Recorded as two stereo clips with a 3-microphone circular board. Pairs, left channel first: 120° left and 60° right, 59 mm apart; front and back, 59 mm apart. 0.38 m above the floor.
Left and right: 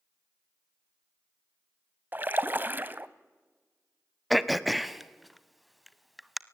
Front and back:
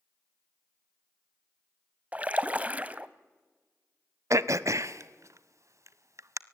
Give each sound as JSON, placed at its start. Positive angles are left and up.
{"t": 2.1, "sound": "a splash", "azimuth_deg": -115, "distance_m": 0.9}
{"t": 4.3, "sound": "throat clearing", "azimuth_deg": -150, "distance_m": 0.8}